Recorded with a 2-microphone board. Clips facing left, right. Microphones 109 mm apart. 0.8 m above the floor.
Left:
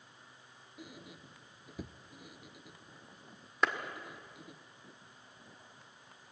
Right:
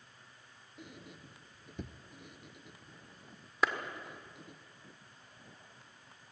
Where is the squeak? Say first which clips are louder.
Even; 5° left (ahead or behind), 0.8 m.